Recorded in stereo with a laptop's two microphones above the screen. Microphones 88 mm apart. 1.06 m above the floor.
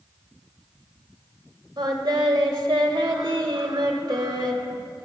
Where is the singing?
55° right (ahead or behind), 1.2 m.